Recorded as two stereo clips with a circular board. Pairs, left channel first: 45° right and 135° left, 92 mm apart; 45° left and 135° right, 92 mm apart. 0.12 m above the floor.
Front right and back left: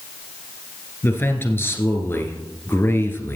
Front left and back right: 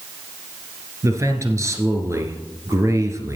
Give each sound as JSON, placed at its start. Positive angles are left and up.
{"t": 1.0, "sound": "a man speaking", "azimuth_deg": -100, "distance_m": 1.8}